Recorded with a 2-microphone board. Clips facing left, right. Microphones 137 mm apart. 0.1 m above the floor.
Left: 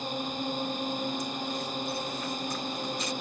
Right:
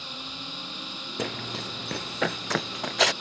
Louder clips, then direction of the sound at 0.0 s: Left 9 dB; 45° left (ahead or behind).